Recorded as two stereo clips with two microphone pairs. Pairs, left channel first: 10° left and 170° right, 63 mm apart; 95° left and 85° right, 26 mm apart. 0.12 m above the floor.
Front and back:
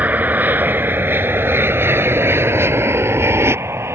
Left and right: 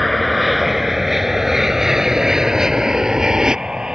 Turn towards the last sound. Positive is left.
turn(degrees=-135)